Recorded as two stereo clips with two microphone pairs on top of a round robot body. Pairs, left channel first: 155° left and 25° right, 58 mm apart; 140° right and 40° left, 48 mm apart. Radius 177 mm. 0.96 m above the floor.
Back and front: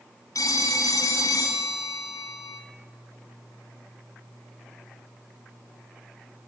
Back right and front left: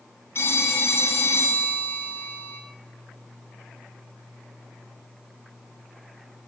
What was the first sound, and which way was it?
A phone ringing, straight behind.